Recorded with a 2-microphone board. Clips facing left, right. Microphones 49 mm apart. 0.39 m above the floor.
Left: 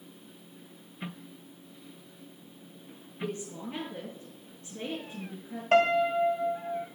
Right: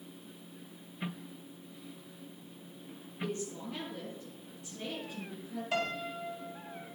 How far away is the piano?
About 1.9 m.